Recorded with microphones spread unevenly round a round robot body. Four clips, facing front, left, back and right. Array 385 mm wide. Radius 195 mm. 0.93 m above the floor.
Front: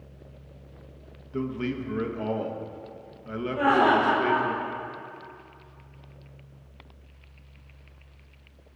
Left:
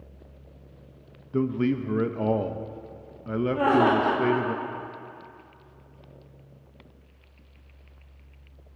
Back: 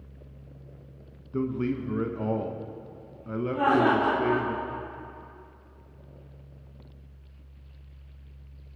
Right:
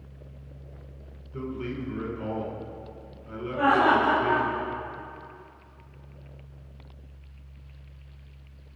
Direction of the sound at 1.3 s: 85° left.